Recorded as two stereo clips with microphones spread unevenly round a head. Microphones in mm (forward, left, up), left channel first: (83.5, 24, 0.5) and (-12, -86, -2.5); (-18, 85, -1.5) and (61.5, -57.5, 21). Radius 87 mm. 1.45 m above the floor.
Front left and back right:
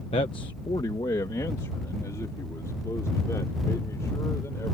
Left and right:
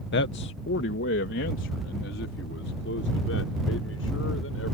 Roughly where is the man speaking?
Left.